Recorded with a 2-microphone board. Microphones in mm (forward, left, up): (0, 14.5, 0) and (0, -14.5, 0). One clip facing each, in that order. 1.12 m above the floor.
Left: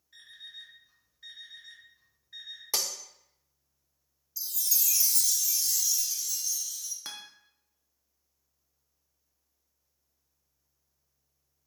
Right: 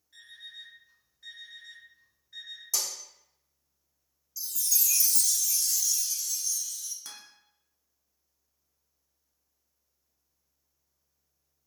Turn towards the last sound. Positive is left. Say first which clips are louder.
# left 5 dB
turn(degrees=30)  # may be behind; listen again after turning